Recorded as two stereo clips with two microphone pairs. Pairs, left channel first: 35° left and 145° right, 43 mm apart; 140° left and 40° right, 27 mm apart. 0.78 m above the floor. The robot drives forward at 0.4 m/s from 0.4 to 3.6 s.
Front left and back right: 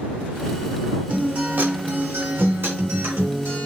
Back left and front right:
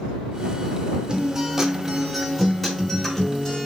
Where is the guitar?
95° right, 0.7 m; by 3.6 s 145° right, 1.3 m.